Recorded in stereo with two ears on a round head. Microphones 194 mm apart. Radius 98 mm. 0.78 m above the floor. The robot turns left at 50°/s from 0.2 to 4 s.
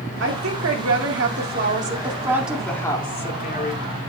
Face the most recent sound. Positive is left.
turn(degrees=110)